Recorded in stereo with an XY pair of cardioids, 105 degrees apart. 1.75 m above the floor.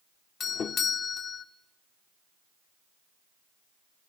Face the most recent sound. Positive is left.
turn(degrees=55)